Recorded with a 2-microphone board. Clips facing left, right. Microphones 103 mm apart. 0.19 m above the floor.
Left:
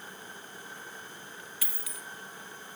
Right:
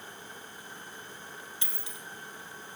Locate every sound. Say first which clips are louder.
1.6 s a dropped coin: even; 25° right (ahead or behind), 1.9 m